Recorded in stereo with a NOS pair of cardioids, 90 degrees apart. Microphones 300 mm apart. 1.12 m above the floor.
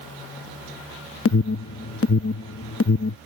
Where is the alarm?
55° left.